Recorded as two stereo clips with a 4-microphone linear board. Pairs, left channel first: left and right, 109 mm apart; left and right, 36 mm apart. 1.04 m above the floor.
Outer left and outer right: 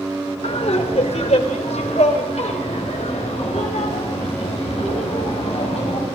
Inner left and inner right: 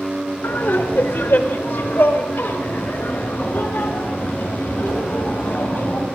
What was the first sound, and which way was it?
Laughter, 75° left (ahead or behind).